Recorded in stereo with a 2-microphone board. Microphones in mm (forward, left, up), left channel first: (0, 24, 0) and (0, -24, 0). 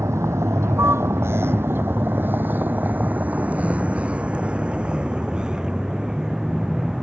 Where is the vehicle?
85° right; by 7.0 s 10° right (ahead or behind).